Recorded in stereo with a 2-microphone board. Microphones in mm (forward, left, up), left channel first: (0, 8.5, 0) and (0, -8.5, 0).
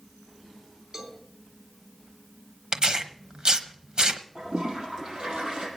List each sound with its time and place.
0.9 s a cowbell: 35° right (ahead or behind), 3 m
2.7 s tearing paper: 50° right (ahead or behind), 1.0 m
4.3 s a toilet flushing: 55° right (ahead or behind), 5 m